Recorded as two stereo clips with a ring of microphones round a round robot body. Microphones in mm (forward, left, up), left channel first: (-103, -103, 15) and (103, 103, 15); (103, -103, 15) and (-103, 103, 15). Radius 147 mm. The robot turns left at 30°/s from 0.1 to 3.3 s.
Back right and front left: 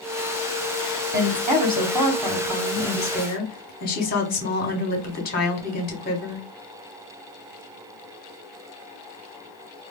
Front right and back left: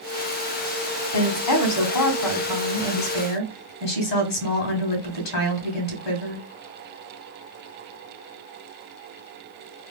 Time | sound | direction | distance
1.1 | a woman speaking | 10° right | 1.7 m